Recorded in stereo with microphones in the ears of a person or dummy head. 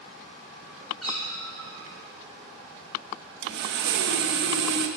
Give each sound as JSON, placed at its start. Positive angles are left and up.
{"t": 1.0, "sound": "a cat meowing", "side_deg": 0, "distance_m": 5.5}
{"t": 3.4, "sound": "sawing", "side_deg": -75, "distance_m": 1.0}